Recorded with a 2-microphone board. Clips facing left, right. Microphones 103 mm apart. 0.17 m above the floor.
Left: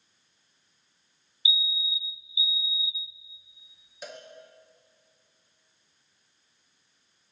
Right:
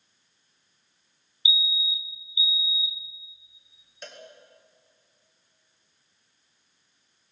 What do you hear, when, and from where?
1.4 s a fire alarm: 25° right (ahead or behind), 2.5 m
4.0 s a cowbell: 5° left (ahead or behind), 4 m